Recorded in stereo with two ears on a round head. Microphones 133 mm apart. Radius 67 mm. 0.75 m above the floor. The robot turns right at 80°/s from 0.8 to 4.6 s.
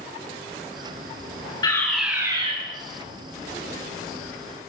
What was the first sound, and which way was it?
A fire alarm, 150° left.